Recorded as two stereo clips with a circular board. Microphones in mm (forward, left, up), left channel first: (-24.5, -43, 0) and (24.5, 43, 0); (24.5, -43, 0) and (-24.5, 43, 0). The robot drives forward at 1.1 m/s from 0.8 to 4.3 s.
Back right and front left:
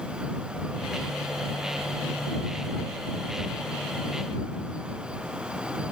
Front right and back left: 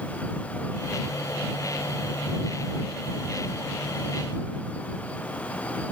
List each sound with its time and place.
Only background noise.